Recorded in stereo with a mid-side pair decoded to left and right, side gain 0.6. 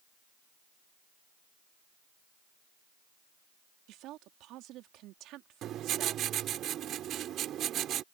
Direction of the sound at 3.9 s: 65° right.